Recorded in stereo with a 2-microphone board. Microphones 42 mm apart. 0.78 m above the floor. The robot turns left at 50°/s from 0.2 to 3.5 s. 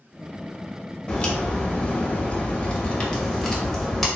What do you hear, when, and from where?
1.1 s a crack: 130° left, 1.1 m; by 4.1 s 10° left, 1.1 m